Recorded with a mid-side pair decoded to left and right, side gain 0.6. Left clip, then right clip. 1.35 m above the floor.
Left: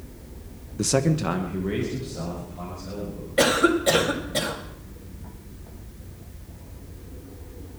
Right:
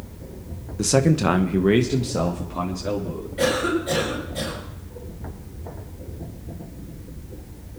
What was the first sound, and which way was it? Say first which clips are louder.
A man speaking: right 4 dB; straight ahead.